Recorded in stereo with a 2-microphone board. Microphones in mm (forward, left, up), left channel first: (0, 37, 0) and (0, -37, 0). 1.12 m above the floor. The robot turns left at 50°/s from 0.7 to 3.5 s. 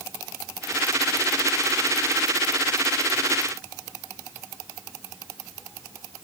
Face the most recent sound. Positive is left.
No sound to turn to.